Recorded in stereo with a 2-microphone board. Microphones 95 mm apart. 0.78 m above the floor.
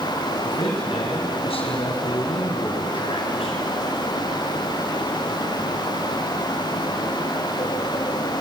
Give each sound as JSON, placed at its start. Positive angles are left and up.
{"t": 0.4, "sound": "a man speaking", "side_deg": 75, "distance_m": 5.5}